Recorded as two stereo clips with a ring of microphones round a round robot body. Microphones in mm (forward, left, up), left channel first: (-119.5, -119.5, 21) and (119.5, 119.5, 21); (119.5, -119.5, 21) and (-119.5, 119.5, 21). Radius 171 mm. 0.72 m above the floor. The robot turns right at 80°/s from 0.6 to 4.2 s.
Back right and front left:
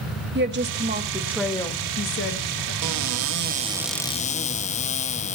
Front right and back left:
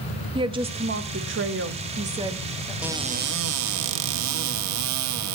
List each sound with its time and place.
0.3 s a woman speaking: 70° left, 1.2 m; by 2.7 s 120° right, 1.2 m
2.8 s a cupboard door: 50° left, 1.0 m; by 5.4 s 160° left, 1.0 m